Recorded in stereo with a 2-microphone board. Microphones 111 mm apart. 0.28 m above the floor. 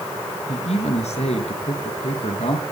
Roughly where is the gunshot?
I don't hear a gunshot.